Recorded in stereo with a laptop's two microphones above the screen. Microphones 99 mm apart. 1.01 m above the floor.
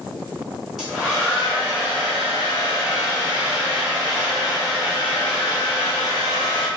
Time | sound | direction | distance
0.8 | a hair dryer | 5° right (ahead or behind) | 1.2 m